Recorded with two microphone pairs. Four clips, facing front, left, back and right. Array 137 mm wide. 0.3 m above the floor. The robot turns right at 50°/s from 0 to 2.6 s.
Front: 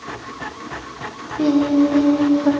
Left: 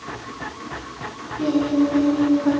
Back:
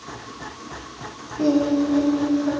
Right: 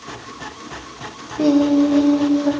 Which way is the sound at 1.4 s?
60° right.